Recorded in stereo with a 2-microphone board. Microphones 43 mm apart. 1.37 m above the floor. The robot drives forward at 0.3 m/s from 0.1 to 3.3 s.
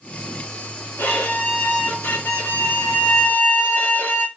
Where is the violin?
85° left, 2.5 m; by 4.3 s 70° left (ahead or behind), 2.5 m.